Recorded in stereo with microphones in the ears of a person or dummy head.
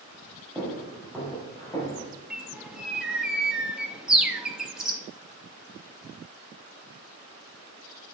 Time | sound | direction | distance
0.6 | footsteps | centre (ahead or behind) | 3 m
2.3 | a bird | 5° right (ahead or behind) | 0.9 m